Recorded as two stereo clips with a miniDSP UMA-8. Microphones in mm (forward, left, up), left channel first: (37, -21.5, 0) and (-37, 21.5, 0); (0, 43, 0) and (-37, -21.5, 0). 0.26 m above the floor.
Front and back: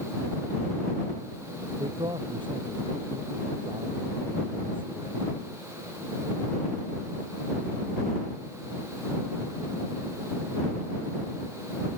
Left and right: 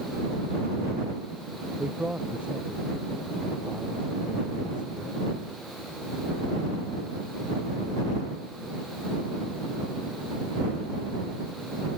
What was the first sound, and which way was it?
A man speaking, 170° left.